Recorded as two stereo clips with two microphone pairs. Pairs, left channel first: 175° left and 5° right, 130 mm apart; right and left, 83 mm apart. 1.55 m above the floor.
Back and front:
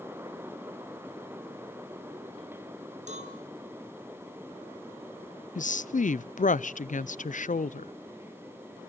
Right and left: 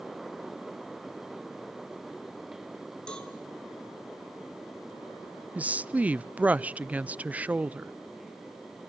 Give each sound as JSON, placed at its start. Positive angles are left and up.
{"t": 3.1, "sound": "a cowbell", "azimuth_deg": -10, "distance_m": 3.5}
{"t": 5.5, "sound": "a woman speaking", "azimuth_deg": 170, "distance_m": 0.5}